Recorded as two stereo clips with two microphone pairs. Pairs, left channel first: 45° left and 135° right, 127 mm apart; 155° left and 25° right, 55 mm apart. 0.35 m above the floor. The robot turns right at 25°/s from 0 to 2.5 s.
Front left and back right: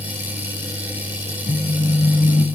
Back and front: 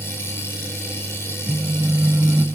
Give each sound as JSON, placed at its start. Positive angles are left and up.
{"t": 1.5, "sound": "a phone buzzing", "azimuth_deg": 25, "distance_m": 0.8}